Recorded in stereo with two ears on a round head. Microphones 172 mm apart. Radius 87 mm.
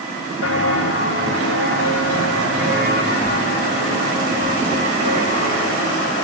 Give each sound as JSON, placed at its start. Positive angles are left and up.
{"t": 0.4, "sound": "footsteps", "side_deg": 80, "distance_m": 4.5}